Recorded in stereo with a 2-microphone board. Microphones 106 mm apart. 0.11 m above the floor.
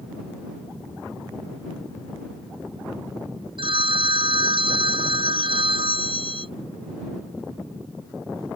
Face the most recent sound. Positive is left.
turn(degrees=-60)  # may be behind; listen again after turning